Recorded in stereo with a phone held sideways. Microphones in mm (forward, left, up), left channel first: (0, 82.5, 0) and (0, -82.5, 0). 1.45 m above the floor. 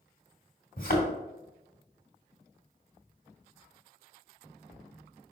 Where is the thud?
60° left (ahead or behind), 2 m.